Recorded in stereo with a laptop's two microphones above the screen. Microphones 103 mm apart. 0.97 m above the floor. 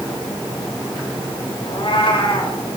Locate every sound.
1.7 s a cat meowing: 55° left (ahead or behind), 2 m